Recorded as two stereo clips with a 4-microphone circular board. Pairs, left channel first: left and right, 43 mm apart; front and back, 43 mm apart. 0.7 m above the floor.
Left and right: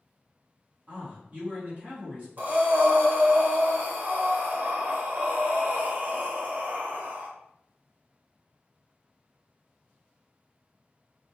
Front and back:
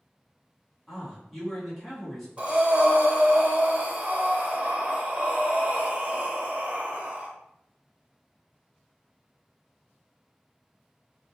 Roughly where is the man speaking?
Right.